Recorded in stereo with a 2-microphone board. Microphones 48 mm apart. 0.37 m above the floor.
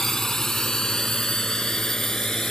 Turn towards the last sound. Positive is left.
turn(degrees=15)  # may be behind; listen again after turning